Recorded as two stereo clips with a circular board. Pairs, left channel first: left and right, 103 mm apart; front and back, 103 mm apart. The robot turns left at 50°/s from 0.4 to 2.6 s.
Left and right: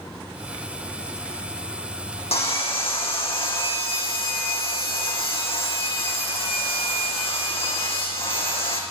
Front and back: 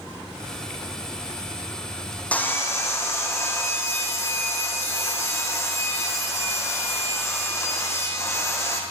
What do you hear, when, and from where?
2.3 s sawing: 75° left, 4 m; by 8.8 s 60° left, 4 m